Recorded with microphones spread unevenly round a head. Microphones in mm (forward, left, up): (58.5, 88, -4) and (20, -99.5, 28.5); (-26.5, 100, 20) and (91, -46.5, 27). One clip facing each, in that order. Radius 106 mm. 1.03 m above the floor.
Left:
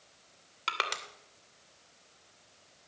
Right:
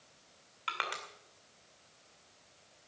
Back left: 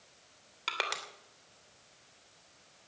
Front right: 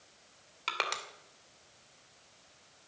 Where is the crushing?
40° left, 2.5 m.